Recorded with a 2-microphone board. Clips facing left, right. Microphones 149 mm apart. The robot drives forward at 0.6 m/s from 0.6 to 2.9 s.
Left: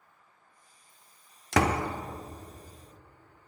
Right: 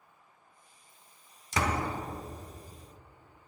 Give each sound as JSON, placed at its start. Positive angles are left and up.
{"t": 1.5, "sound": "a door slam", "side_deg": 75, "distance_m": 0.8}